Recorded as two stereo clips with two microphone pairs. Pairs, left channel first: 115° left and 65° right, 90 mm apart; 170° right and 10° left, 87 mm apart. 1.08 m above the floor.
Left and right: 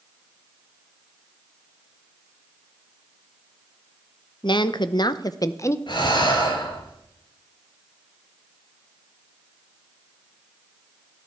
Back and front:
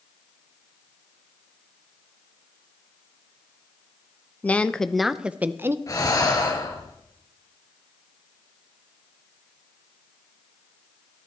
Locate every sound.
4.4 s a woman speaking: 120° left, 0.9 m; by 5.8 s 60° left, 0.8 m
5.9 s breathing: 140° left, 3 m